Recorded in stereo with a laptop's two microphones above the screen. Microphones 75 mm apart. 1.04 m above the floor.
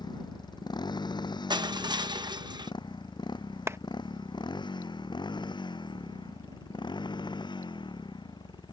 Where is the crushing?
75° right (ahead or behind).